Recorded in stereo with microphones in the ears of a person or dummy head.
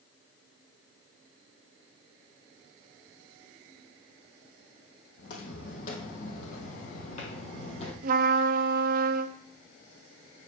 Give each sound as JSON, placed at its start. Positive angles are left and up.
{"t": 5.2, "sound": "footsteps", "side_deg": 60, "distance_m": 3.5}
{"t": 8.0, "sound": "a trumpet", "side_deg": -55, "distance_m": 0.9}